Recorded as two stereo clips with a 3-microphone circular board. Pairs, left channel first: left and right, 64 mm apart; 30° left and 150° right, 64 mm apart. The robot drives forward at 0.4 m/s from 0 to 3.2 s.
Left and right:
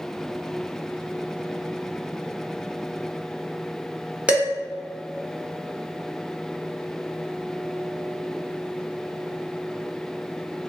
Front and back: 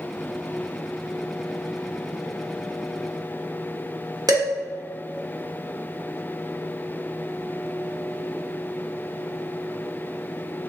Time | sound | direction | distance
4.3 | dishes clattering | 160° right | 1.3 m